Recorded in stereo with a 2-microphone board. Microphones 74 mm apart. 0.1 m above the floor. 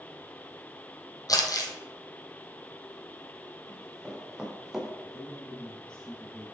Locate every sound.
1.3 s crumpling: 55° left (ahead or behind), 1.3 m
3.7 s running footsteps: 10° right (ahead or behind), 3.5 m; by 4.9 s 5° right (ahead or behind), 1.8 m
5.0 s a man speaking: 15° left (ahead or behind), 1.6 m